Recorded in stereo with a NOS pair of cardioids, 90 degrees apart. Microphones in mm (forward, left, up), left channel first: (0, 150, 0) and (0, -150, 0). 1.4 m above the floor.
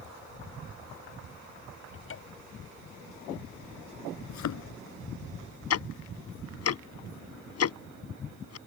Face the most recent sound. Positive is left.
turn(degrees=55)